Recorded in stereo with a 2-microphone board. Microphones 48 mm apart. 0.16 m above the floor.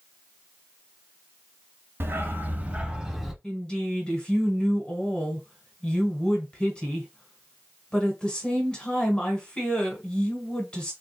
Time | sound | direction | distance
2.0 | a dog barking | 50° right (ahead or behind) | 0.8 m
3.4 | a woman speaking | 20° left (ahead or behind) | 1.4 m